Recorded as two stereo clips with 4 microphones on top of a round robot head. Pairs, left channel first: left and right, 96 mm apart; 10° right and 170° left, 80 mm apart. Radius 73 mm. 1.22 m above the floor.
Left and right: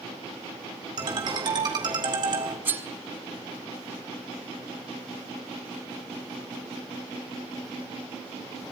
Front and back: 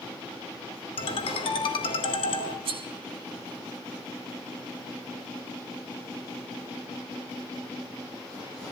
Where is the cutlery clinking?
160° right, 1.6 m.